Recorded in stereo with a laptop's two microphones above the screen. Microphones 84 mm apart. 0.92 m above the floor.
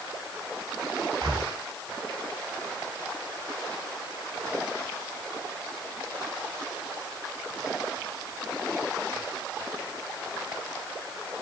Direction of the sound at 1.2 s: 65° right (ahead or behind).